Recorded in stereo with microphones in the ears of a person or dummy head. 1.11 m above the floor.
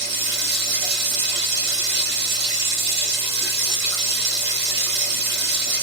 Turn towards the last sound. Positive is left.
turn(degrees=-55)  # may be behind; listen again after turning